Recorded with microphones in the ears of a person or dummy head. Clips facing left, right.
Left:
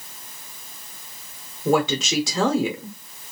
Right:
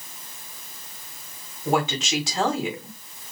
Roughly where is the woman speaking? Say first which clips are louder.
Left 4 dB; left.